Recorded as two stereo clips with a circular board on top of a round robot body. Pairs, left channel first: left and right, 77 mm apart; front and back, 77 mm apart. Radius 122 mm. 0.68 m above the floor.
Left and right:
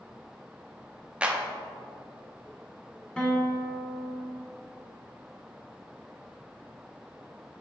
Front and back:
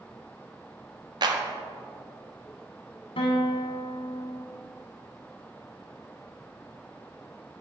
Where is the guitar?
10° left, 1.0 m.